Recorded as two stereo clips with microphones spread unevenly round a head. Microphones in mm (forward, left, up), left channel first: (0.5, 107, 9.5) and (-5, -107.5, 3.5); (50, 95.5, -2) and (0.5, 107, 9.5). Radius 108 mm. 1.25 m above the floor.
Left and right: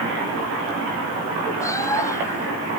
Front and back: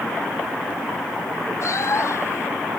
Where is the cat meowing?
10° left.